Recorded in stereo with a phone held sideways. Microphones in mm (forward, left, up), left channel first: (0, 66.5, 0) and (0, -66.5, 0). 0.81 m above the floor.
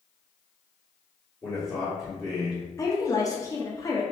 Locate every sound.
1.4 s a man speaking: centre (ahead or behind), 1.5 m
2.8 s a woman speaking: 25° left (ahead or behind), 0.7 m